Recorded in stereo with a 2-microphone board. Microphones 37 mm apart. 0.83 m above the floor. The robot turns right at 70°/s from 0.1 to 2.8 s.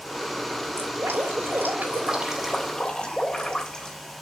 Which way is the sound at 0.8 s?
120° right.